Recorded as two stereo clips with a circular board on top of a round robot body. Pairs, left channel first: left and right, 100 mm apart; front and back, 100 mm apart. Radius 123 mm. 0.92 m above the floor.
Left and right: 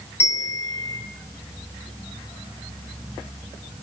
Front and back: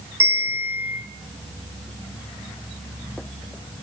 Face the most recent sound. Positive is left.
turn(degrees=115)